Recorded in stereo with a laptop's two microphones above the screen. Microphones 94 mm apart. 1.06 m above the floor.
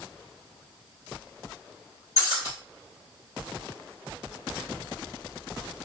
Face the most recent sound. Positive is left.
turn(degrees=35)  # may be behind; listen again after turning